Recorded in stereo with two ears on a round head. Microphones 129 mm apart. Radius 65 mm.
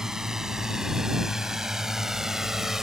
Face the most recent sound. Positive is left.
turn(degrees=-5)  # may be behind; listen again after turning